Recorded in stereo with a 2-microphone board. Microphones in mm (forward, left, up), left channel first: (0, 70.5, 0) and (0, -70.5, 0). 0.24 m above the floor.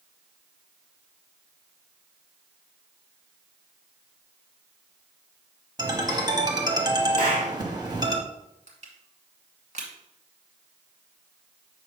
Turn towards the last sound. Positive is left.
turn(degrees=-60)  # may be behind; listen again after turning